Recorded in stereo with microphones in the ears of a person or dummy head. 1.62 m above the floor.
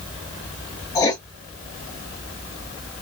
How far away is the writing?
About 0.9 m.